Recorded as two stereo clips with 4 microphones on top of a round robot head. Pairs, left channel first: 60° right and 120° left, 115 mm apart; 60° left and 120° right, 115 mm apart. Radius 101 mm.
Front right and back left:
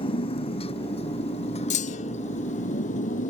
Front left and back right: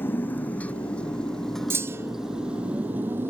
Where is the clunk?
50° right.